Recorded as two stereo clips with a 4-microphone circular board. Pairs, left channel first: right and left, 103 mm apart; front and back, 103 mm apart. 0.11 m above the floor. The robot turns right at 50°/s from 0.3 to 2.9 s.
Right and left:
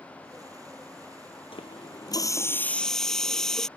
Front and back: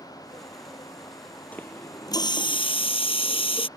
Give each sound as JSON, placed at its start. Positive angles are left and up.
{"t": 1.5, "sound": "a running tap", "azimuth_deg": -75}